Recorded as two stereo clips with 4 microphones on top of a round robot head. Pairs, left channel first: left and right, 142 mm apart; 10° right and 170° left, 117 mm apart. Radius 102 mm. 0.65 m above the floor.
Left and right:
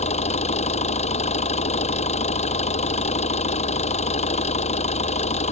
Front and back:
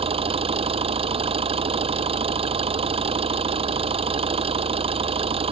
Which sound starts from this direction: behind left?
An engine running, at 0.0 s.